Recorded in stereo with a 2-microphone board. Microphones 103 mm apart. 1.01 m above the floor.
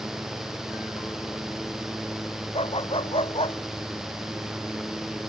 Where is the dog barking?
65° left (ahead or behind).